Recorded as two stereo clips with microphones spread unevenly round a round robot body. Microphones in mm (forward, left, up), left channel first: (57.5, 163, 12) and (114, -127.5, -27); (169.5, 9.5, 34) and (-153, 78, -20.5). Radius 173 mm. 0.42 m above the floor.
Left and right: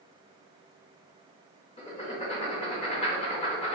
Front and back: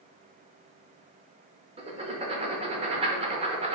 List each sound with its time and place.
1.8 s writing: 165° left, 0.5 m